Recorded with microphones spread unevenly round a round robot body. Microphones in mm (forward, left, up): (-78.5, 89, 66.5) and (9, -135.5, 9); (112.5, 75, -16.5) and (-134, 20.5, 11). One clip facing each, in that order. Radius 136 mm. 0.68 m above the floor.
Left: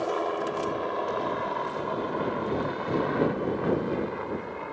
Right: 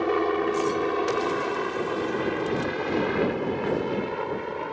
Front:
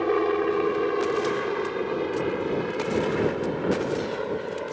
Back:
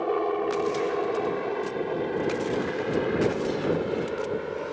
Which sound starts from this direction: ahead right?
A helicopter, at 0.0 s.